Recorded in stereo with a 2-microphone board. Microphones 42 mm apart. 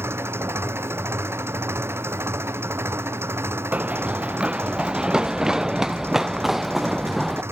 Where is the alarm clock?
No alarm clock in this recording.